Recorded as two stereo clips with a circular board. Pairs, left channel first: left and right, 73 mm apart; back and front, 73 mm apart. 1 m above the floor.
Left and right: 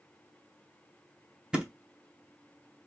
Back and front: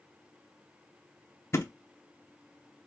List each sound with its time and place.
1.5 s a thud: 160° right, 0.6 m